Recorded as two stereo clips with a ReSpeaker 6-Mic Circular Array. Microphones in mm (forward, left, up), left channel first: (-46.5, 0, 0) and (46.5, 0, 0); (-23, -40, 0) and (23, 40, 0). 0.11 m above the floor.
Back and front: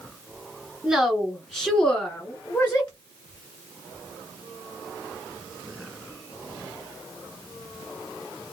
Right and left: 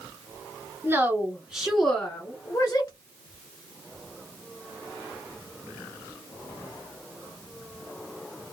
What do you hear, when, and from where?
0.8 s a woman speaking: 75° left, 1.1 m; by 2.9 s 130° right, 1.2 m